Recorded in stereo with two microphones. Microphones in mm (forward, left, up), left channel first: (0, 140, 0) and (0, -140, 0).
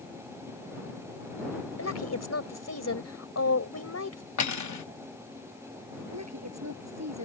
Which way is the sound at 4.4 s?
75° left (ahead or behind).